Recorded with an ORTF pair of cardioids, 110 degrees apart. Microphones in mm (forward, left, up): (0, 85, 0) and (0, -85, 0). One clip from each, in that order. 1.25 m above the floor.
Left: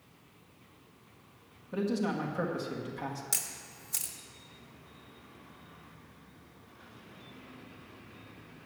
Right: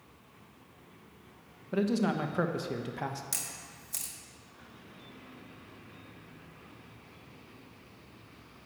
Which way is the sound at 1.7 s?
30° right.